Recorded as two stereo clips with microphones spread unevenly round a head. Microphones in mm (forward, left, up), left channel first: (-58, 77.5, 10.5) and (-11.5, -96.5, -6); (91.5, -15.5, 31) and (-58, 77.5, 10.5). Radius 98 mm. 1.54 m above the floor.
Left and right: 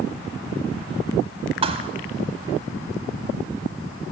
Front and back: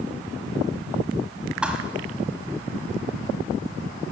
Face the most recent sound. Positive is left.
turn(degrees=-120)